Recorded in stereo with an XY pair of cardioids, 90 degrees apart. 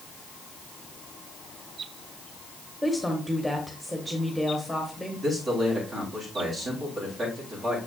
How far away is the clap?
I don't hear a clap.